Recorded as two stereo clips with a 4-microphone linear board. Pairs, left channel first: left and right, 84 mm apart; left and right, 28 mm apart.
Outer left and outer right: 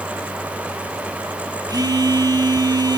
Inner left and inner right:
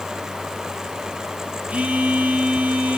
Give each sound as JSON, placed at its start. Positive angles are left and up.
{"t": 1.7, "sound": "a phone buzzing", "side_deg": -50, "distance_m": 6.0}